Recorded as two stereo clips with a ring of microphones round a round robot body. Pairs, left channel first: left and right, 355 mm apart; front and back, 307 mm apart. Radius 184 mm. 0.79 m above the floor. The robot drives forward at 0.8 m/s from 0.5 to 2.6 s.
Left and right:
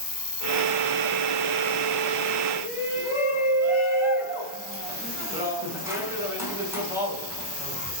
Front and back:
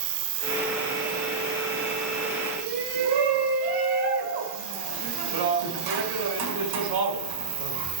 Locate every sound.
0.0 s an insect: 165° left, 3.5 m; by 8.0 s 170° left, 5.5 m
2.6 s a shout: 175° right, 7 m